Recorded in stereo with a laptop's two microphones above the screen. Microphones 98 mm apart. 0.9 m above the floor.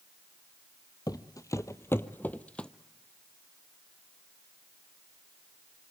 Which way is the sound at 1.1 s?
40° left (ahead or behind).